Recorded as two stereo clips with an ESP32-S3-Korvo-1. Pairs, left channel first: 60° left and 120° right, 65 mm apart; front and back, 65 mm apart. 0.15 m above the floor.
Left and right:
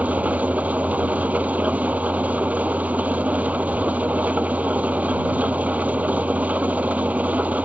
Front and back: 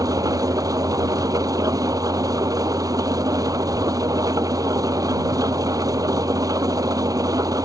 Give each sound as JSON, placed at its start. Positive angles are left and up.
{"t": 0.0, "sound": "an engine running", "azimuth_deg": 175}